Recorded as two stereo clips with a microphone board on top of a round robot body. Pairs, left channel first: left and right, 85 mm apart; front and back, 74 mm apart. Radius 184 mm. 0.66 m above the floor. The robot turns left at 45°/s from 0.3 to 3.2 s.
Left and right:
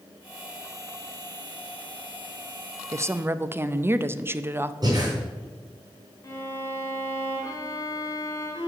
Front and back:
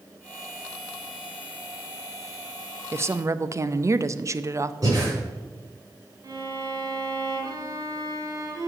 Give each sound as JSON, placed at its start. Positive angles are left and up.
{"t": 2.9, "sound": "a woman speaking", "azimuth_deg": -135, "distance_m": 0.7}
{"t": 4.8, "sound": "breathing", "azimuth_deg": -135, "distance_m": 4.0}
{"t": 6.2, "sound": "a violin", "azimuth_deg": 145, "distance_m": 4.5}